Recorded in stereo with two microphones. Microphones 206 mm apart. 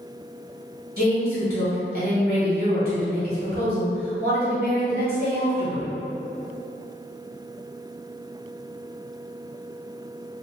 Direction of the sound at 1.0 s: 45° right (ahead or behind).